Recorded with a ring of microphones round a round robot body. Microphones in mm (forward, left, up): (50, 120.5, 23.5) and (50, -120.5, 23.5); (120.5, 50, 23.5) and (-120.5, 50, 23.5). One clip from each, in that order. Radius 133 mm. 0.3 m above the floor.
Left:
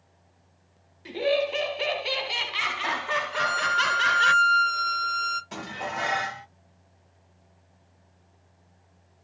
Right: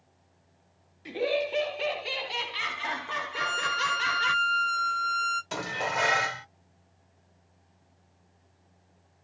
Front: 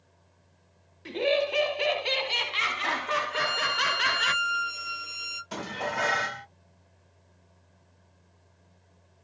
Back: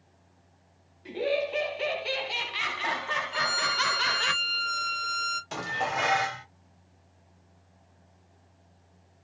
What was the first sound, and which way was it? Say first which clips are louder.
Laughter: left 3 dB, front 3 dB; 10° left.